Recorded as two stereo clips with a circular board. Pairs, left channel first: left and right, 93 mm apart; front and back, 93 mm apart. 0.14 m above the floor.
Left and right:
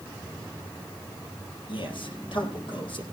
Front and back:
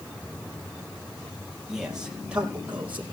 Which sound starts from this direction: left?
A man speaking, at 1.7 s.